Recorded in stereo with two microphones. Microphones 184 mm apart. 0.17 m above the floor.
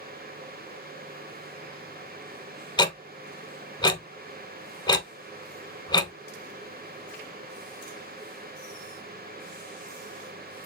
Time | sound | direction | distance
2.8 | ticking | 25° left (ahead or behind) | 0.6 m